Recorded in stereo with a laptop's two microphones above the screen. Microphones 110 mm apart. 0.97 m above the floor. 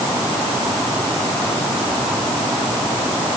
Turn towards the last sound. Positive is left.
No sound to turn to.